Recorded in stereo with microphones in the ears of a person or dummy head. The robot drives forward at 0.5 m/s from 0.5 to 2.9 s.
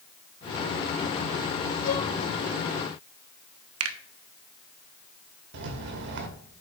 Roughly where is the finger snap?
Right.